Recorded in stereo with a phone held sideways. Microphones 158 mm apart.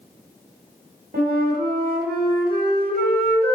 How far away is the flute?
About 1.6 m.